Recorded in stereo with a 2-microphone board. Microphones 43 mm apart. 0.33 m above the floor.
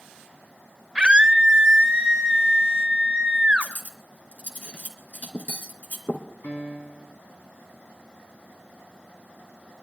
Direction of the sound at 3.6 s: 35° left (ahead or behind).